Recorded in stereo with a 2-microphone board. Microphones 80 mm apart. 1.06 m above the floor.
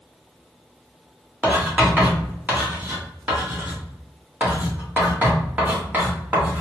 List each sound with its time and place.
1.4 s writing: 20° right (ahead or behind), 1.7 m